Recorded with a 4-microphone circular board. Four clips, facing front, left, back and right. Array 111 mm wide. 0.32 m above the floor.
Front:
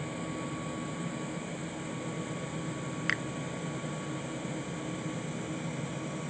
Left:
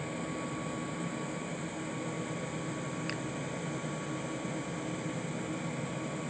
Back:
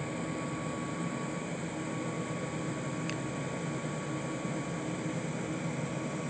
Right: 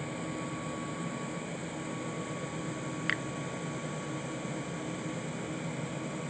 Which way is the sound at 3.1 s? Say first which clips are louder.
Right 3 dB, front 2 dB; 30° right.